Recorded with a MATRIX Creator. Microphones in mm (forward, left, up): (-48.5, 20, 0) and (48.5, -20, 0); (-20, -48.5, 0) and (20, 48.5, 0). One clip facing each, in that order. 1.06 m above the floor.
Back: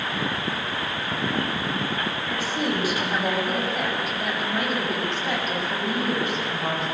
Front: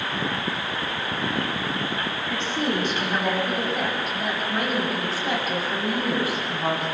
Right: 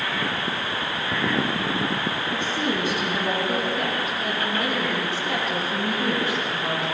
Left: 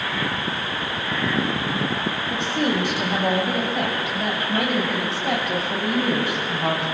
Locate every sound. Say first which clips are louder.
2.3 s a woman speaking: front 1 dB, left 5 dB; 75° left, 6 m; by 6.8 s 55° left, 7.5 m